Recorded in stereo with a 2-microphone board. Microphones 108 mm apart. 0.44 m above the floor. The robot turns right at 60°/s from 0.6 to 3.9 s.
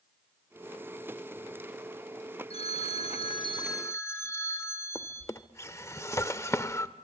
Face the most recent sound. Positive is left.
turn(degrees=25)  # may be behind; listen again after turning